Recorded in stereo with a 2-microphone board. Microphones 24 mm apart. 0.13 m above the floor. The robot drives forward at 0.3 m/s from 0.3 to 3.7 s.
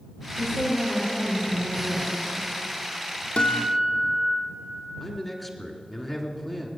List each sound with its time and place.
0.4 s a woman speaking: 30° left (ahead or behind), 6 m; by 2.5 s 25° left (ahead or behind), 6.5 m
3.4 s a guitar: 55° left (ahead or behind), 1.9 m
5.0 s a man speaking: 5° left (ahead or behind), 1.7 m